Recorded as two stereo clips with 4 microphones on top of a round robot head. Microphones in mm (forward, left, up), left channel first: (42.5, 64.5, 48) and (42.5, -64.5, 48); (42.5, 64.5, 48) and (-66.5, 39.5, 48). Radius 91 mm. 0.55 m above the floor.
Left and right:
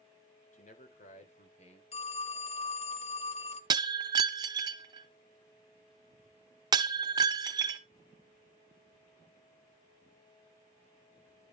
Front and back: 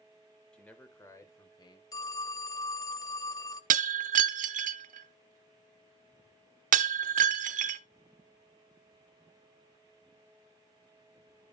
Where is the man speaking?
95° left, 2.5 m; by 1.8 s 55° left, 3 m.